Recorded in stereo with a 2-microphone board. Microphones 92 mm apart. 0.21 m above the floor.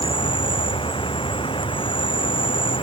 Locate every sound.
0.0 s an insect: 85° left